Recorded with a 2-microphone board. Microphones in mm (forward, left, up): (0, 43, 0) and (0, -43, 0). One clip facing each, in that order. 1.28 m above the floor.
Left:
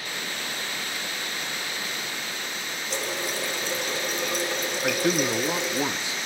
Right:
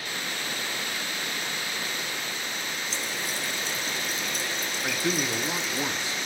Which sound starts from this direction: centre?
A man speaking, at 4.8 s.